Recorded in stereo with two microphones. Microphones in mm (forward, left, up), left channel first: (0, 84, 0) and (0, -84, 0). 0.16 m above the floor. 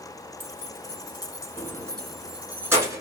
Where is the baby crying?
I don't hear a baby crying.